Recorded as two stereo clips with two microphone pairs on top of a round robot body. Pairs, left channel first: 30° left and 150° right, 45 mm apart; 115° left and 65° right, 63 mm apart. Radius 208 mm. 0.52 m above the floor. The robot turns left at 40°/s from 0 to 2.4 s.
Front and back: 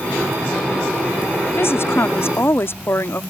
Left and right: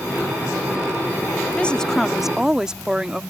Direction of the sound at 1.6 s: 45° left.